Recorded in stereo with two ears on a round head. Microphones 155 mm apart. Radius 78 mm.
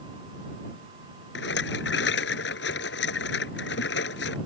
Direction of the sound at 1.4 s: 75° left (ahead or behind).